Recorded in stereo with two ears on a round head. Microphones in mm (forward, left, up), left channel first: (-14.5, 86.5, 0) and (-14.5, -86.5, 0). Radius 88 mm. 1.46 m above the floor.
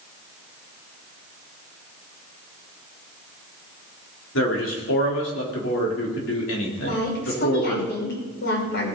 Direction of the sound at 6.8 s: 60° left (ahead or behind).